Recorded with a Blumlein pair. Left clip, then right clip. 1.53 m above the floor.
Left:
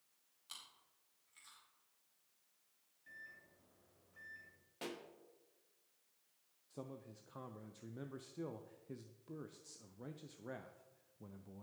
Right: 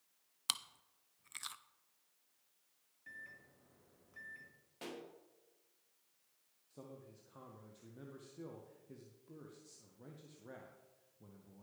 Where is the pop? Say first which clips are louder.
Left 1 dB; 10° left, 1.3 m.